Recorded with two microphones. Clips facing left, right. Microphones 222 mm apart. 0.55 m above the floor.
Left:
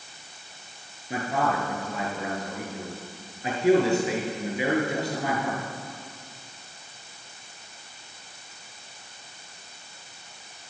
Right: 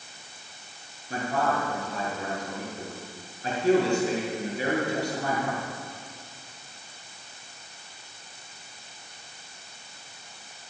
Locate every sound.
1.1 s a man speaking: 20° left (ahead or behind), 7 m